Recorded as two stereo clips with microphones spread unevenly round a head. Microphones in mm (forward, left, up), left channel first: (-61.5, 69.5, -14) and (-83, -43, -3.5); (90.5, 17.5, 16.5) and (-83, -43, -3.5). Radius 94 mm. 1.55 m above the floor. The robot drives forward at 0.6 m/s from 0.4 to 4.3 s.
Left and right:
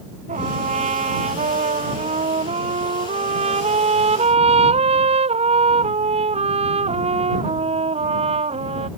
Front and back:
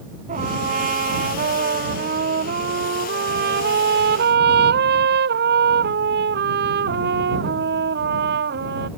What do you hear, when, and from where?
0.3 s a trumpet: 110° right; by 8.9 s 125° right